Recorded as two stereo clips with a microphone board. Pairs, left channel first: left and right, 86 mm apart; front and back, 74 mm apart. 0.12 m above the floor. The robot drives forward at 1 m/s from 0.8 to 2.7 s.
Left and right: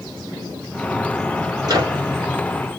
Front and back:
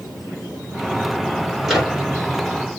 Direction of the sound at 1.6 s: 90° right.